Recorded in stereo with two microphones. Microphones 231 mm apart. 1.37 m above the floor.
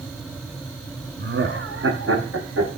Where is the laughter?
50° right (ahead or behind), 0.9 m; by 2.7 s 70° right (ahead or behind), 1.8 m.